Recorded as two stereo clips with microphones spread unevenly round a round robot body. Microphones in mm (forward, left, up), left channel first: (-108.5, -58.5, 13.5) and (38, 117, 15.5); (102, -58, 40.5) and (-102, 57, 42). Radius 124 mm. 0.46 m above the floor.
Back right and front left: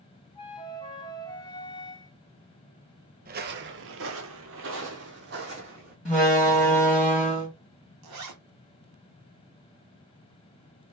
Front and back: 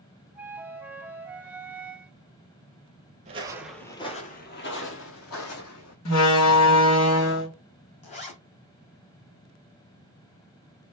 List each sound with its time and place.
0.3 s a flute: 135° right, 0.8 m
3.2 s footsteps: 95° left, 0.6 m; by 6.0 s 5° right, 1.6 m
6.0 s a door slam: 35° right, 1.9 m
8.0 s a zipper: 35° left, 1.4 m